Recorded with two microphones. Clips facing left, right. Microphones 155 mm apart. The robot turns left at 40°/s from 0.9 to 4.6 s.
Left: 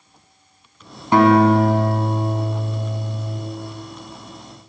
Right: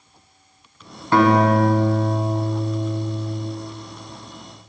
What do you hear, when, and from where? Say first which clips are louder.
1.1 s a guitar: left 3 dB; 165° left, 2 m; by 3.4 s 70° left, 2 m